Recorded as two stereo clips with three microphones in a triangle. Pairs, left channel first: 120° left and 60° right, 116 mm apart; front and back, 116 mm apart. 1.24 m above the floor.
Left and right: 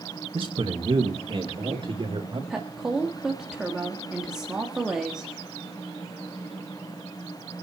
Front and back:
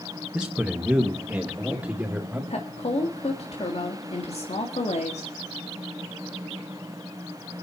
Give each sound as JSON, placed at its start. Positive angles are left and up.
{"t": 0.3, "sound": "a man speaking", "azimuth_deg": -95, "distance_m": 1.5}
{"t": 2.5, "sound": "a woman speaking", "azimuth_deg": 25, "distance_m": 1.9}